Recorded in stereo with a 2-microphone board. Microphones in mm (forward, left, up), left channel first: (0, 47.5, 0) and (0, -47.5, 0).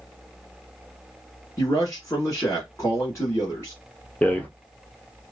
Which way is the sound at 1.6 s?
30° left (ahead or behind).